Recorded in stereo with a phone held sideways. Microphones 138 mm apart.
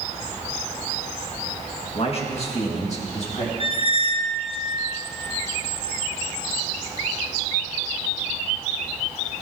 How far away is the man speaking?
About 1.4 m.